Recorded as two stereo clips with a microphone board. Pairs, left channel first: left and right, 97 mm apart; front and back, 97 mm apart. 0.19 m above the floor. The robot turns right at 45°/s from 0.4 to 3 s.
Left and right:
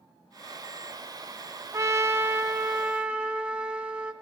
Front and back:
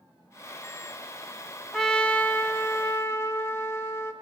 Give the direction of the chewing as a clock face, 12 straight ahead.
No chewing in this recording.